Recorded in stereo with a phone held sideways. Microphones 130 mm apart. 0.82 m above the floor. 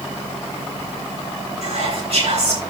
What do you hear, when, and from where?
1.6 s whispering: 55° right (ahead or behind), 9.5 m